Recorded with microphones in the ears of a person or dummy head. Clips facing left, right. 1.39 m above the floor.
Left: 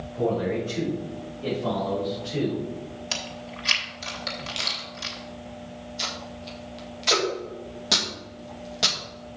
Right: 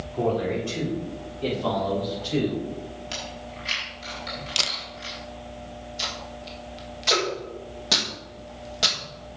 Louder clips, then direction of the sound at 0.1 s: Even; 70° right (ahead or behind).